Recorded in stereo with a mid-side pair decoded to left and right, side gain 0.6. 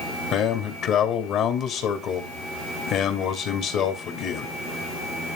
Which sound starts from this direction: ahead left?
A man speaking, at 0.3 s.